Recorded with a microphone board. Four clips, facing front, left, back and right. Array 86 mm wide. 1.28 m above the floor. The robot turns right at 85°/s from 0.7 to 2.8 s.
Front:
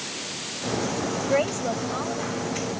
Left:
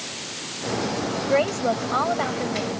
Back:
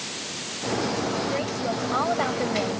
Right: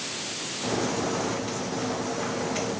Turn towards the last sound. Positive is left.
turn(degrees=-175)